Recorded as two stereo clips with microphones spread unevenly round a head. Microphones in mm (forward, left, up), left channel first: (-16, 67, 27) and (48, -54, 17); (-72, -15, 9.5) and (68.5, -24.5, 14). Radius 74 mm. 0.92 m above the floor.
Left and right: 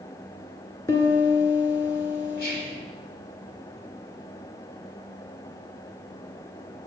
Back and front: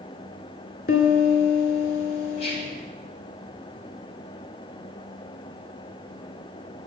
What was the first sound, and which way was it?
A piano, 175° right.